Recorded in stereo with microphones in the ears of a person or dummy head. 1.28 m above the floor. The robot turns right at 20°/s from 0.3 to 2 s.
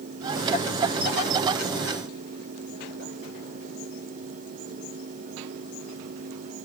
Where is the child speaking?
I don't hear a child speaking.